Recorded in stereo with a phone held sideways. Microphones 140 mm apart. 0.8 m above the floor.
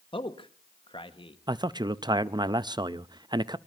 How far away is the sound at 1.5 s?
About 0.5 m.